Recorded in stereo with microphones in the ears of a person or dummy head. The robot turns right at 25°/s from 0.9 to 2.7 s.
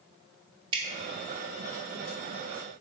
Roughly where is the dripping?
Right.